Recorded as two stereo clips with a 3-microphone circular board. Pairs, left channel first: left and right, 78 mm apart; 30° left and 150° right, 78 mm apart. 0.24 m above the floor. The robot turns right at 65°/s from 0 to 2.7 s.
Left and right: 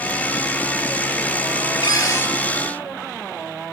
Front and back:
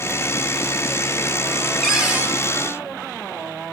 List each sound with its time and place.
1.8 s a cupboard door: 120° left, 4 m; by 2.3 s 155° left, 4 m